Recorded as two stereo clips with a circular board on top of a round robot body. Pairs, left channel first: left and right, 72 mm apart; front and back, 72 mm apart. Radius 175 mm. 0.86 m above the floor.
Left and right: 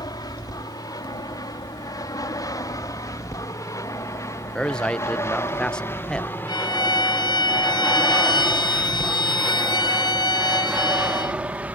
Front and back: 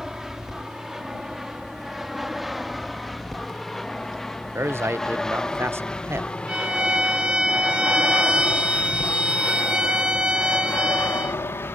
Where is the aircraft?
100° left; by 11.8 s 35° right.